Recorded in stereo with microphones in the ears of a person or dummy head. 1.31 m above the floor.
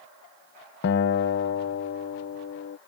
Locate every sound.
0.8 s a guitar: 60° left (ahead or behind)